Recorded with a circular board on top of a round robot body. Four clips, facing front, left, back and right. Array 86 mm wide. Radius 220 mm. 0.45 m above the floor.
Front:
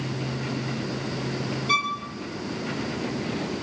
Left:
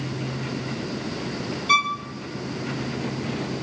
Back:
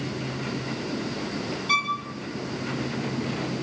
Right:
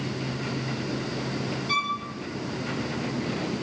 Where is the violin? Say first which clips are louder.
Left 7 dB, even; 80° left, 4 m.